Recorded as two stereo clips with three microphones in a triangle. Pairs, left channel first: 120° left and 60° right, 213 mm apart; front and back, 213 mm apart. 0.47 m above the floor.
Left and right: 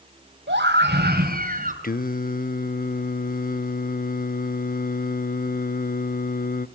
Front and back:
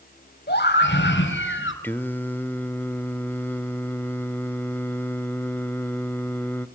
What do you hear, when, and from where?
0.5 s a scream: 35° right, 3 m; by 1.7 s 10° right, 3 m
1.8 s singing: 80° left, 0.7 m